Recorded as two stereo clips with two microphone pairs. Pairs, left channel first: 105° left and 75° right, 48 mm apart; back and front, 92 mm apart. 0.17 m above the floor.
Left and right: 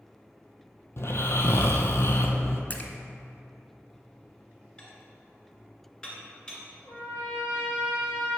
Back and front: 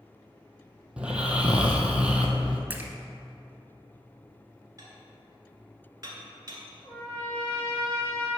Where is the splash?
60° left, 0.7 m.